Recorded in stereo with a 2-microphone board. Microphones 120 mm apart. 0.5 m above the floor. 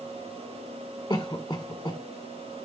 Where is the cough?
25° left (ahead or behind), 1.5 m.